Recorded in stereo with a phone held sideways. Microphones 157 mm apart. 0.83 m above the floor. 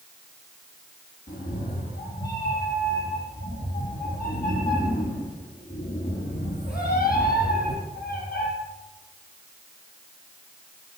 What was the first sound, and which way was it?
A cat meowing, 75° left (ahead or behind).